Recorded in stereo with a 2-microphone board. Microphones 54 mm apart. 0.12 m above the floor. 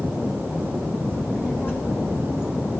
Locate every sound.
1.1 s a child speaking: 35° left (ahead or behind), 5.5 m; by 2.8 s 60° left (ahead or behind), 5.5 m